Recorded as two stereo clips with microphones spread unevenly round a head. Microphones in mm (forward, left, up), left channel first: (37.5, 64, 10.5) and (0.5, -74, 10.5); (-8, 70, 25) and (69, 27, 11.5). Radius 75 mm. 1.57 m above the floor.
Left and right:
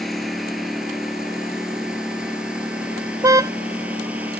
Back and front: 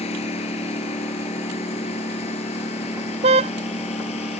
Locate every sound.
0.0 s a lawn mower: 165° left; by 4.4 s 175° left
3.2 s a car horn: 35° right